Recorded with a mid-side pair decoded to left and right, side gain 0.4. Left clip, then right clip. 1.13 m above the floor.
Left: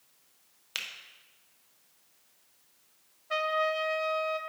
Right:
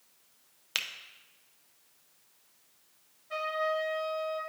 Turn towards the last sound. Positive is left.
turn(degrees=65)